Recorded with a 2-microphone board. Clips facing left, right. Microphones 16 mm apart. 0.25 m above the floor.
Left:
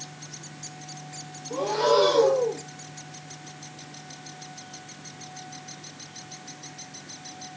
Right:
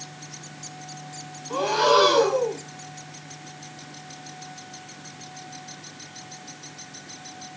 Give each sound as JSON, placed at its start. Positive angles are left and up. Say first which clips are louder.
{"t": 1.5, "sound": "breathing", "louder": "right 3 dB", "side_deg": -65, "distance_m": 0.9}